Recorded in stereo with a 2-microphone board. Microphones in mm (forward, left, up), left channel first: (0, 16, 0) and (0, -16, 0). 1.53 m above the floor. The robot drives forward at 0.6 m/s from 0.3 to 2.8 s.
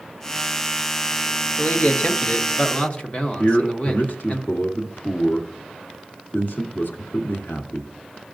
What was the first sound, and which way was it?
A man speaking, 75° left (ahead or behind).